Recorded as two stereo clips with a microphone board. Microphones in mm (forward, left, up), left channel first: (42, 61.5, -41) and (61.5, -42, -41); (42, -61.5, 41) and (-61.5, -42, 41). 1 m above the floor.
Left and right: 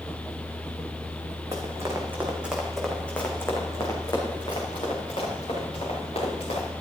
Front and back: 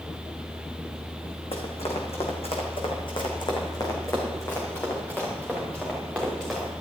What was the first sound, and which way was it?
Running footsteps, 25° right.